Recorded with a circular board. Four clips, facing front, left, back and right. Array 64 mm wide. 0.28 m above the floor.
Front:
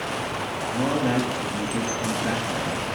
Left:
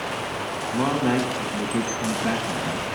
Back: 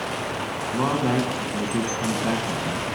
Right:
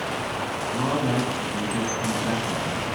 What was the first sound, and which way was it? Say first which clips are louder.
A man speaking: left 3 dB, back 1 dB; 145° left.